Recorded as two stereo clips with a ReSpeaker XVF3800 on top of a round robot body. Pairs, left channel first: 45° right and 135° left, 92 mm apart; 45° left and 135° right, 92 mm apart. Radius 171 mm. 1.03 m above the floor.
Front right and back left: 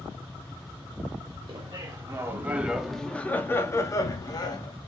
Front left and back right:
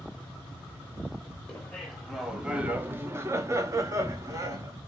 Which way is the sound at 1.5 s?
120° left.